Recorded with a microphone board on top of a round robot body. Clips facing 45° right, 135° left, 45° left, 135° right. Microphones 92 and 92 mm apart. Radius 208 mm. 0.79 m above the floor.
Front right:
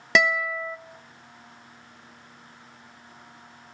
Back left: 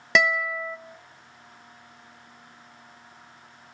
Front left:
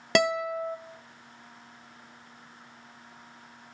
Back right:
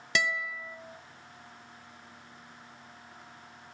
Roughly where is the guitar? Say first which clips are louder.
Even, front left 7 dB; ahead left.